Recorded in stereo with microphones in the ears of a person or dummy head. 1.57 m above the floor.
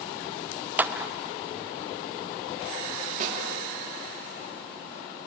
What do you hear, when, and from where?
0.8 s a clap: 10° right (ahead or behind), 0.7 m
3.2 s a snare drum: 45° right (ahead or behind), 3 m